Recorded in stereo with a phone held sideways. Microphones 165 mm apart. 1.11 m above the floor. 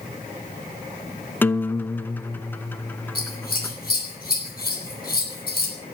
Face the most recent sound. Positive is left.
turn(degrees=70)  # may be behind; listen again after turning